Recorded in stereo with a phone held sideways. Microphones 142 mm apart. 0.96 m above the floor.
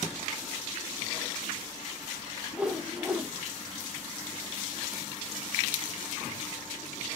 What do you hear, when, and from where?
2.5 s a whoosh: 5° right (ahead or behind), 0.5 m